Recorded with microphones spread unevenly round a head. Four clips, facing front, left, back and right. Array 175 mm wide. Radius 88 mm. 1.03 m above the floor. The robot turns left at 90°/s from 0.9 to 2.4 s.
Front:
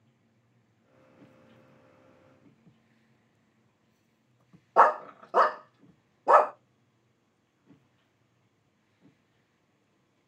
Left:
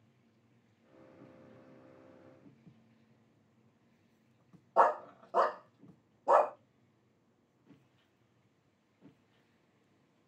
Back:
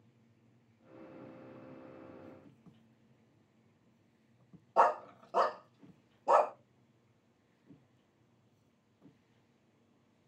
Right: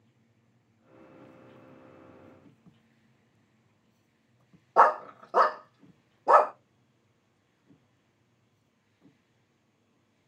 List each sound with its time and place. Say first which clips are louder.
4.8 s a dog barking: right 6 dB, front 7 dB; 40° right, 0.5 m